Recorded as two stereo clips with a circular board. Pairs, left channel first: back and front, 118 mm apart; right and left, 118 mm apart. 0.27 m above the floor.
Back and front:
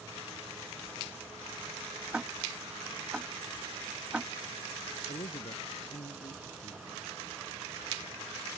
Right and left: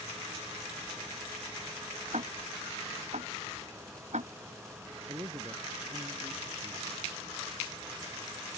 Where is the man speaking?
150° left.